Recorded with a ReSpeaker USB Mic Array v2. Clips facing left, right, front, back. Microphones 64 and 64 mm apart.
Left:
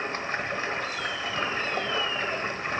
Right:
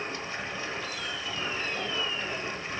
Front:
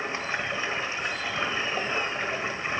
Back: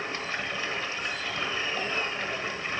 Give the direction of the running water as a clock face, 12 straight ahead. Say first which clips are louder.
Left 5 dB, front 3 dB; 10 o'clock.